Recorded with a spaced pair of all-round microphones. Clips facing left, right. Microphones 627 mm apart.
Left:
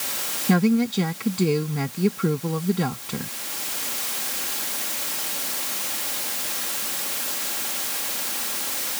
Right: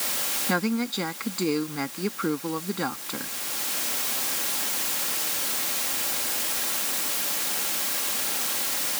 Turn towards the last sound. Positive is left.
turn(degrees=55)  # may be behind; listen again after turning